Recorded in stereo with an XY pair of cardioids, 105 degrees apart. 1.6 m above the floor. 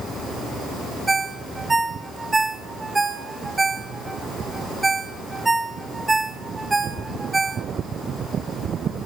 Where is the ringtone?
20° right, 2 m.